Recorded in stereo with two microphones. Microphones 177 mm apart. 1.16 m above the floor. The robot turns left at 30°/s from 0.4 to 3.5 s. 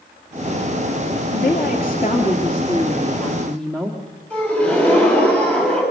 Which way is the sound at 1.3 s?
70° left.